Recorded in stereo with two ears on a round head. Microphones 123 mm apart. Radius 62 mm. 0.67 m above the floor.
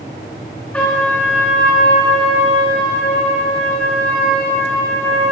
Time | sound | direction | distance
0.7 | a trumpet | 10° left (ahead or behind) | 4.5 m